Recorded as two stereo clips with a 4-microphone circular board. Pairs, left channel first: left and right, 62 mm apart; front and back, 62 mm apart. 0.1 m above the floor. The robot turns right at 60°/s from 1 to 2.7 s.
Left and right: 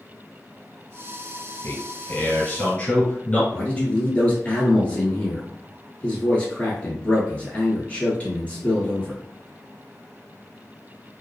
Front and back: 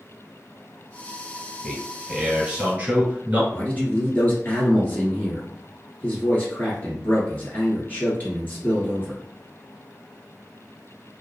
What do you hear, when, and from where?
1.6 s a man speaking: 65° left, 1.3 m; by 3.4 s 130° left, 1.3 m
3.5 s a man speaking: 40° left, 1.3 m